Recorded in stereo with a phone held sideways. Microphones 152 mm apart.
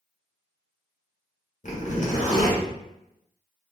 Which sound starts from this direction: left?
A zipper, at 1.6 s.